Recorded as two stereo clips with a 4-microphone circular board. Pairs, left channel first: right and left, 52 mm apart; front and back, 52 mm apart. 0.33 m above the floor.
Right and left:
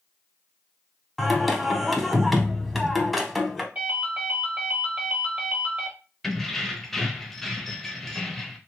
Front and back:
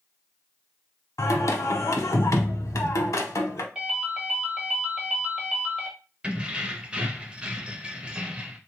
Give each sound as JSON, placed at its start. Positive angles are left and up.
{"t": 1.2, "sound": "singing", "azimuth_deg": 0, "distance_m": 0.6}
{"t": 3.8, "sound": "a ringtone", "azimuth_deg": 115, "distance_m": 1.0}
{"t": 6.2, "sound": "keys jangling", "azimuth_deg": -165, "distance_m": 0.5}